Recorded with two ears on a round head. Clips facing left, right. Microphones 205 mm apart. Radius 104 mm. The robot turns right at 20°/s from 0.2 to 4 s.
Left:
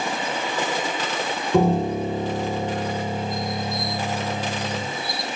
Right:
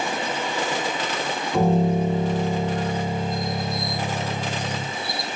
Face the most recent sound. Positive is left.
turn(degrees=125)